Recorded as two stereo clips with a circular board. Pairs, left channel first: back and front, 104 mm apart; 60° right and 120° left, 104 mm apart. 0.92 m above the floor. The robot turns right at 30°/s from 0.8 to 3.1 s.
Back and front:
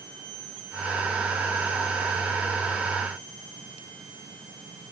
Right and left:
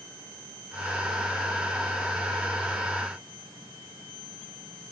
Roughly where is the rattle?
No rattle in this recording.